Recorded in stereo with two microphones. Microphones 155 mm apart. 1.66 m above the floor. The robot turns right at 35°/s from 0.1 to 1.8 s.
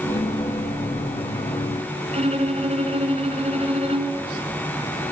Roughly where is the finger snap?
I don't hear a finger snap.